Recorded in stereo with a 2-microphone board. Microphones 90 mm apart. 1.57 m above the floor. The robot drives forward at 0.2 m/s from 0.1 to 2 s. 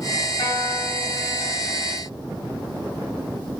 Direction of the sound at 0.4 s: 65° left (ahead or behind).